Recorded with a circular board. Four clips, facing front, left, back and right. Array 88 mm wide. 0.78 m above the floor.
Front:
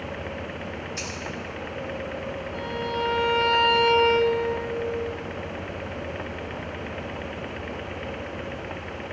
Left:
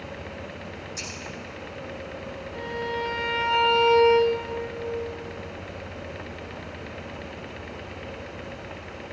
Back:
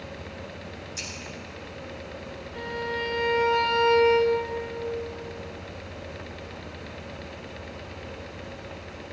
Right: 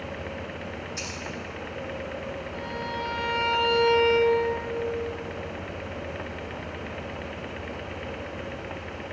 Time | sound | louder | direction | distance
1.0 | scissors | right 2 dB, front 6 dB | 25° right | 7 m
2.5 | a violin | left 5 dB, front 1 dB | 5° right | 5 m